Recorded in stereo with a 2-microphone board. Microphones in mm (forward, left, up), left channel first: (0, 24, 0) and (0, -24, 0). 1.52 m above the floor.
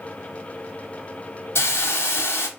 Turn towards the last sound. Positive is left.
turn(degrees=60)  # may be behind; listen again after turning